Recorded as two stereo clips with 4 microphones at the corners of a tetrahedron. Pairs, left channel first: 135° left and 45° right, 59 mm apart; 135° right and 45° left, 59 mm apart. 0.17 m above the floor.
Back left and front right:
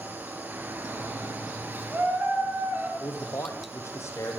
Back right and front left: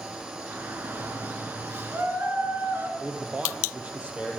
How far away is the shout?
About 3 m.